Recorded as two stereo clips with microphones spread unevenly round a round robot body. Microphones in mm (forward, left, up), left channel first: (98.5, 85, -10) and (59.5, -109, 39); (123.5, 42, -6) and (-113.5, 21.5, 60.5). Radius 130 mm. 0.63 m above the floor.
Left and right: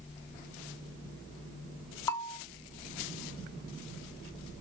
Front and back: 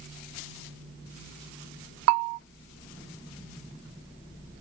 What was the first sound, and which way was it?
A bell, 155° left.